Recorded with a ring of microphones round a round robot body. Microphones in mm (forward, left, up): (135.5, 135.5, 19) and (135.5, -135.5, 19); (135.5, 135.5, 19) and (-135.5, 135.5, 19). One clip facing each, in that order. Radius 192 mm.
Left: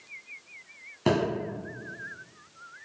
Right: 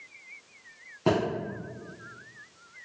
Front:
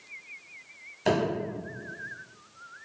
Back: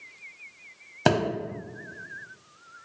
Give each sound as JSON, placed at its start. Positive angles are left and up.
{"t": 1.1, "sound": "a thud", "azimuth_deg": 165, "distance_m": 0.9}